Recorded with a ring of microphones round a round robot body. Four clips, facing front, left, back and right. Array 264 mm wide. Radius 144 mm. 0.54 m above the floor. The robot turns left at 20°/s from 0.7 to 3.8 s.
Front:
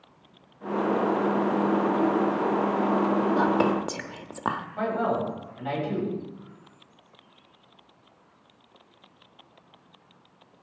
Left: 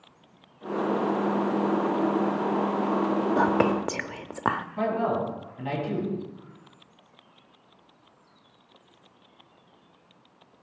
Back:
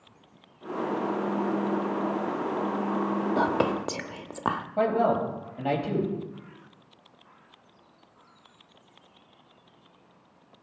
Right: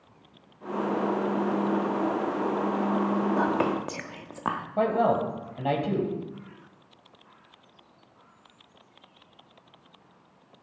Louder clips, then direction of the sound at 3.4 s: Left 3 dB, front 2 dB; 120° left.